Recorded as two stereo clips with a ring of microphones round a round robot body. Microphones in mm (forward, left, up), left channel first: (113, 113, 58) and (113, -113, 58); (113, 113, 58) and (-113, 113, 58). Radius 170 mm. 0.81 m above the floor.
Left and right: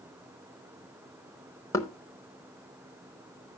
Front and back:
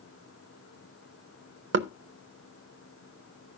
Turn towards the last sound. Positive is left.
turn(degrees=165)